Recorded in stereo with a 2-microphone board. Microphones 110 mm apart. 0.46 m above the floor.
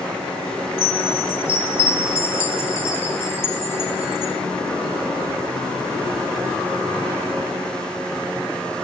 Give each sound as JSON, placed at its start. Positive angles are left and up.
{"t": 0.8, "sound": "a chime", "side_deg": 25, "distance_m": 0.8}